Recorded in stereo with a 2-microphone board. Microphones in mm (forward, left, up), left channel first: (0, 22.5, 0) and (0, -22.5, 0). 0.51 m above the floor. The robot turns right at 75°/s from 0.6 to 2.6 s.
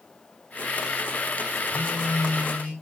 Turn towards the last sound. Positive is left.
turn(degrees=40)